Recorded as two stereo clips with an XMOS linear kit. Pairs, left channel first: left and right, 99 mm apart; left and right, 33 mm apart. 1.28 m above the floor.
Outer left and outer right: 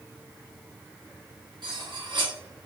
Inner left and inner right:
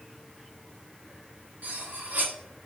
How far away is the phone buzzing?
No phone buzzing in this recording.